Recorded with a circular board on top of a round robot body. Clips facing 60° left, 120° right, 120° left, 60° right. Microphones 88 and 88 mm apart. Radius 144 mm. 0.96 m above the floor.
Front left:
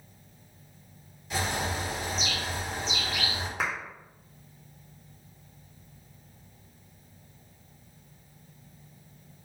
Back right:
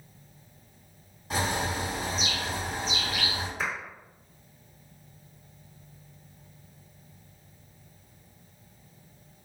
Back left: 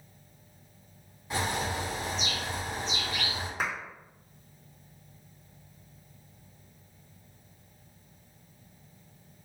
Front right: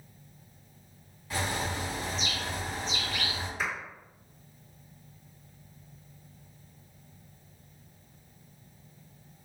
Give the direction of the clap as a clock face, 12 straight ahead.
9 o'clock.